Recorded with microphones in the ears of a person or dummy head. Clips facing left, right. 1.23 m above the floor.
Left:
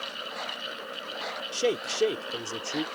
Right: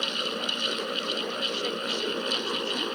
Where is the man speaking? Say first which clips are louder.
Left 4 dB; 65° left (ahead or behind).